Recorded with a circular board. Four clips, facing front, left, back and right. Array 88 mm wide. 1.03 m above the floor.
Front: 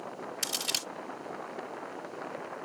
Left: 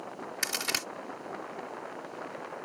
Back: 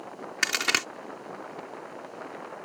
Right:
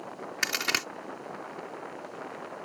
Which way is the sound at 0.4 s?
160° right.